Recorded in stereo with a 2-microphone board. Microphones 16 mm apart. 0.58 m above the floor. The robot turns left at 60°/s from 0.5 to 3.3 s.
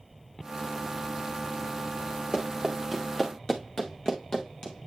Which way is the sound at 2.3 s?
40° right (ahead or behind).